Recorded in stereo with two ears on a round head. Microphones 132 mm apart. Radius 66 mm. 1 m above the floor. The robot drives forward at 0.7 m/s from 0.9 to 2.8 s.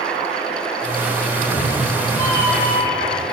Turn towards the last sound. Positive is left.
turn(degrees=20)  # may be behind; listen again after turning